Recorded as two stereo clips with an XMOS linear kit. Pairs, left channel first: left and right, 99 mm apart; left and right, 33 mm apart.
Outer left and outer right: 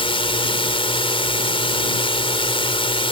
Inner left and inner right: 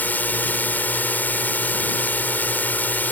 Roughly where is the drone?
Left.